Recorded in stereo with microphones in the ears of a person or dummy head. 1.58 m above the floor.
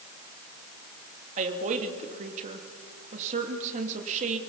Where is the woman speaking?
35° right (ahead or behind), 2 m.